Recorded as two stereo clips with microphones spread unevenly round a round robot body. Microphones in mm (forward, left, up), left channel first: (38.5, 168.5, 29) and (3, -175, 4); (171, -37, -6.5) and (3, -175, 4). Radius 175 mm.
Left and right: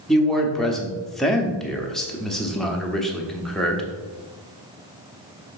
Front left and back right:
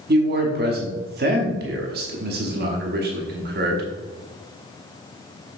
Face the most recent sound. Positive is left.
turn(degrees=175)